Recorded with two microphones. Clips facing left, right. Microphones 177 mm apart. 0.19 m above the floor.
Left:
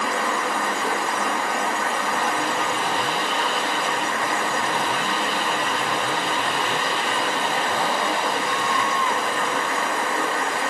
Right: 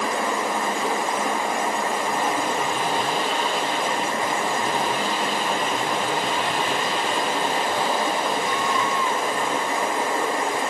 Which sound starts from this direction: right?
Running water, at 0.0 s.